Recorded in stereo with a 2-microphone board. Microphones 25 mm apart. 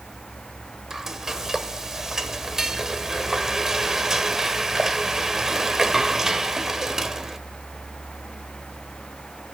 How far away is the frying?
About 1.2 m.